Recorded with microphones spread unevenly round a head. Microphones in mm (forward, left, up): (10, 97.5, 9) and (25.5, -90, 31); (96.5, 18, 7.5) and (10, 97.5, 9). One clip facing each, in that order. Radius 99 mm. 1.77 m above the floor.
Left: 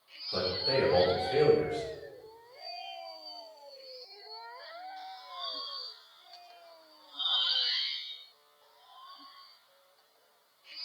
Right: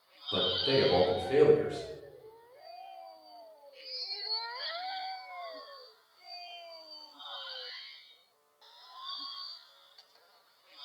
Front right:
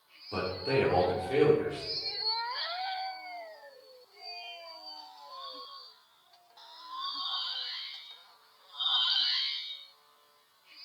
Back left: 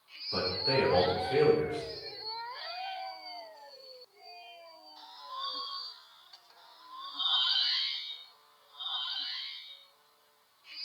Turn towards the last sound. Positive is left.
turn(degrees=-105)